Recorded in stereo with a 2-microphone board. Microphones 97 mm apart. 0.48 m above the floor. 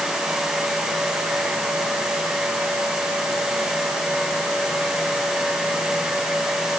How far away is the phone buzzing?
I don't hear a phone buzzing.